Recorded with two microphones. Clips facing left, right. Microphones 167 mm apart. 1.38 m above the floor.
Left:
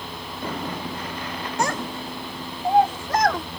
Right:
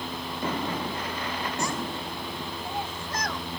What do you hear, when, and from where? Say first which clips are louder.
1.6 s a child speaking: left 4 dB; 70° left (ahead or behind); by 3.5 s 65° left (ahead or behind)